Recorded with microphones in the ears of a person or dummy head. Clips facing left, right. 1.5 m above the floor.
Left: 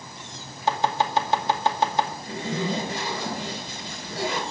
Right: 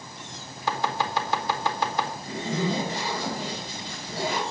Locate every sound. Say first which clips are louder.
0.7 s chopping: left 4 dB; 20° left (ahead or behind), 2 m
2.2 s a zipper: even; 55° left (ahead or behind), 7 m